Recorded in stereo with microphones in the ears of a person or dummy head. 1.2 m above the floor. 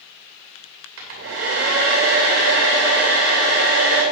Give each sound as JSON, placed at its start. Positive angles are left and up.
{"t": 1.0, "sound": "a hair dryer", "side_deg": -80, "distance_m": 2.5}